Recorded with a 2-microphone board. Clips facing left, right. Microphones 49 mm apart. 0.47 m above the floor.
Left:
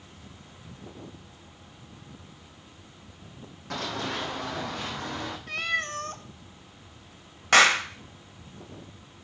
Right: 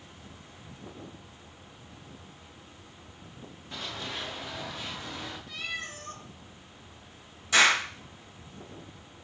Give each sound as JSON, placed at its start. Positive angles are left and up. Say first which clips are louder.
{"t": 3.7, "sound": "running footsteps", "louder": "left 6 dB", "side_deg": 75, "distance_m": 1.8}
{"t": 5.5, "sound": "a cat meowing", "louder": "left 10 dB", "side_deg": 60, "distance_m": 0.7}
{"t": 7.5, "sound": "a clap", "louder": "left 3 dB", "side_deg": 60, "distance_m": 2.0}